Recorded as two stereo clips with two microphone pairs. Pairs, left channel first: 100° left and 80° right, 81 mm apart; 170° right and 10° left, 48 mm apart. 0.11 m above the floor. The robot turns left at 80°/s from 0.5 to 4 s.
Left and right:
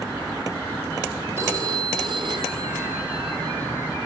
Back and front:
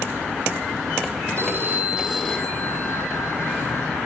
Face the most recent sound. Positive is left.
turn(degrees=130)